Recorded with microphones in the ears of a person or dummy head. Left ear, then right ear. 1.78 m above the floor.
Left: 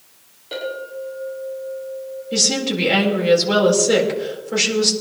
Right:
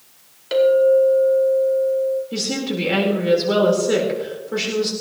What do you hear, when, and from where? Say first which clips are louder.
0.5 s a clink: right 15 dB; 60° right (ahead or behind), 4.5 m
2.3 s a woman speaking: left 5 dB; 15° left (ahead or behind), 4 m